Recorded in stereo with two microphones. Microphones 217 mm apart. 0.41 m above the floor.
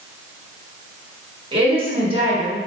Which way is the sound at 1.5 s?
25° right (ahead or behind).